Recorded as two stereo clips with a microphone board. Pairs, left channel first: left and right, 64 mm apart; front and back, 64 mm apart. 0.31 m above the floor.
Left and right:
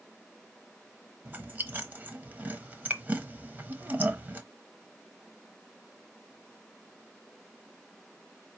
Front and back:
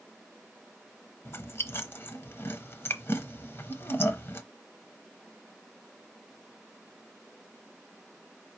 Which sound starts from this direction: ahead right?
Chewing, at 1.2 s.